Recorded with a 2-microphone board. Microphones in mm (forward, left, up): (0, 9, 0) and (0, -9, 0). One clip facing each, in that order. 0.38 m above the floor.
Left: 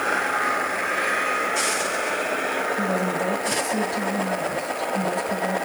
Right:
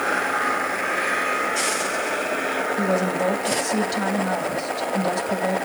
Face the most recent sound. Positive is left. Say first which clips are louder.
# right 2 dB
turn(degrees=-50)  # may be behind; listen again after turning